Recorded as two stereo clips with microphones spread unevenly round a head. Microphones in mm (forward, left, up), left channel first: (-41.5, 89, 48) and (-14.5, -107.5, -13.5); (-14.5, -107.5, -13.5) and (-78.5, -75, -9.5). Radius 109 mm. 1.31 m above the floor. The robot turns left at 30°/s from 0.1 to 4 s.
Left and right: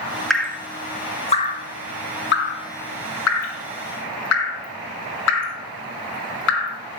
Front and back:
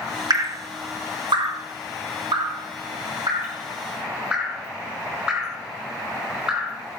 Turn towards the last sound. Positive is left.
turn(degrees=70)